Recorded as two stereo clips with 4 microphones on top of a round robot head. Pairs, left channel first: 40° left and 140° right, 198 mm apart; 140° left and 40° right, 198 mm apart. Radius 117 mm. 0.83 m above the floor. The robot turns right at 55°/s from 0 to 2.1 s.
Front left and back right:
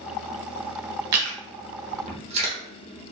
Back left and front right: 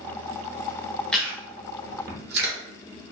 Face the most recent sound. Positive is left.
turn(degrees=-80)